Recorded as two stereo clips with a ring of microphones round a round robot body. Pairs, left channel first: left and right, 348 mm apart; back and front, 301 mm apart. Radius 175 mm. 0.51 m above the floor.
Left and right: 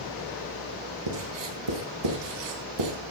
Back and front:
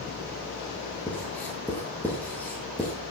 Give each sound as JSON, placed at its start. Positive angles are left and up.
{"t": 1.1, "sound": "writing", "azimuth_deg": -95, "distance_m": 4.0}